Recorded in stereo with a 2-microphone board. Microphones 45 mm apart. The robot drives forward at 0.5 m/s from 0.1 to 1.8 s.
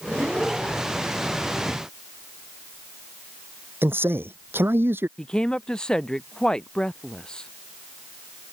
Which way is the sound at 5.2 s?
20° left (ahead or behind).